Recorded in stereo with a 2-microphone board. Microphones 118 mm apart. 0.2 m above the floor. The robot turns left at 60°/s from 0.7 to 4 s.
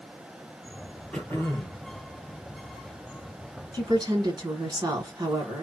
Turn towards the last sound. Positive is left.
turn(degrees=-35)  # may be behind; listen again after turning